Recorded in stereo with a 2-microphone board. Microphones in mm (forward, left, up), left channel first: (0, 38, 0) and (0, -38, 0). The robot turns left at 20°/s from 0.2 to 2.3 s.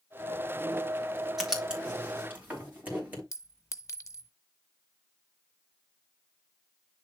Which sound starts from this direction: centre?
Writing, at 1.4 s.